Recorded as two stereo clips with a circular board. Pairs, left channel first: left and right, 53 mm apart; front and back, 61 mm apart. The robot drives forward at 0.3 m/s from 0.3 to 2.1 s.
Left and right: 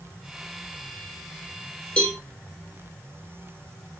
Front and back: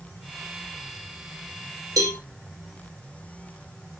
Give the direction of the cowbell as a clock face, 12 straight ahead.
7 o'clock.